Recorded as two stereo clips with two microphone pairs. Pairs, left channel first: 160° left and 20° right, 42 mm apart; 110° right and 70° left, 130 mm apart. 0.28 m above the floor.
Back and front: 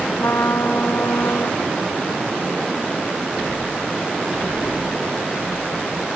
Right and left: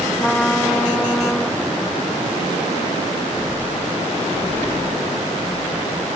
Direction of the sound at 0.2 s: 165° left.